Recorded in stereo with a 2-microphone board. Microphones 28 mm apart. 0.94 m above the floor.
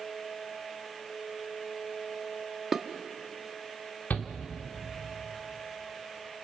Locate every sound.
2.7 s dishes clattering: 10° right (ahead or behind), 0.9 m
4.1 s a shout: 75° left (ahead or behind), 2.5 m